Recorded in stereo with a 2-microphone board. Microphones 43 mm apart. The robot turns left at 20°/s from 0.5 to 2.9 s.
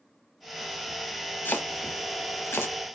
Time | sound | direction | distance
1.4 | chopping | 50° left (ahead or behind) | 0.7 m